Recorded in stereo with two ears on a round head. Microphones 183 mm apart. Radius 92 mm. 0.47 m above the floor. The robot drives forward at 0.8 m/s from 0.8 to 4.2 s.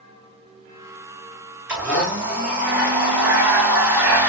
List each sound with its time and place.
1.7 s a blender: 5° right (ahead or behind), 4.5 m; by 4.3 s 10° right (ahead or behind), 2.5 m